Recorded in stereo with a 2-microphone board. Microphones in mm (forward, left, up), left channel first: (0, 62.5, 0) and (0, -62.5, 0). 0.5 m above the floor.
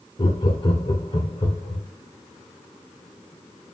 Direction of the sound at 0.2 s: 40° left (ahead or behind).